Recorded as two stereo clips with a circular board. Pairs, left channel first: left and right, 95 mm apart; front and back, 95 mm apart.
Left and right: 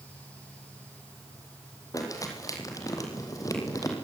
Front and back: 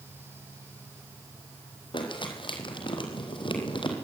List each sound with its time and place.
1.9 s crumpling: 35° left, 4.5 m